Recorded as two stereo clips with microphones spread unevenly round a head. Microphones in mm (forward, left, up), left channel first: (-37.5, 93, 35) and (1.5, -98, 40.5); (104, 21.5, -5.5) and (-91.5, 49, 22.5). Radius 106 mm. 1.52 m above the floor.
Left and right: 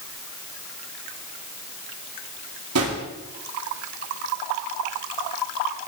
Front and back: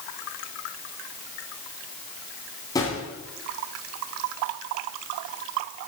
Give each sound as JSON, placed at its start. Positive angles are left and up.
{"t": 2.8, "sound": "a drawer", "azimuth_deg": -85, "distance_m": 3.0}